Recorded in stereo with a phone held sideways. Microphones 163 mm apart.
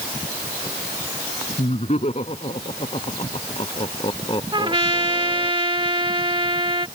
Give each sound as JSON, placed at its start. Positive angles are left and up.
{"t": 1.6, "sound": "laughter", "side_deg": 45}
{"t": 4.5, "sound": "a trumpet", "side_deg": -30}